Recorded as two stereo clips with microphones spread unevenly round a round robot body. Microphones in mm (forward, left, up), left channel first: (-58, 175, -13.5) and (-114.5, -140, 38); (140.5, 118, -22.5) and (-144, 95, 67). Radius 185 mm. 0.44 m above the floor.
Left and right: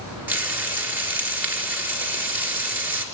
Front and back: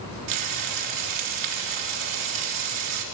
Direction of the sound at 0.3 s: 175° left.